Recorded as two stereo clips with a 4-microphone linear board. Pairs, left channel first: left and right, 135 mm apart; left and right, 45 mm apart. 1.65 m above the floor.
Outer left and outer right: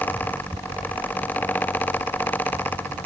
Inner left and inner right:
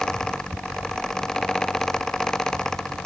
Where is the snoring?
I don't hear snoring.